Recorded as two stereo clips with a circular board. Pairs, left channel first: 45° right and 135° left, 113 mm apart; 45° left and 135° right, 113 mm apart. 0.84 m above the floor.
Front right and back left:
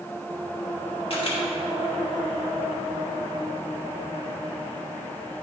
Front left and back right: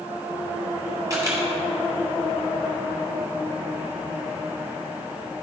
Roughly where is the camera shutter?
Right.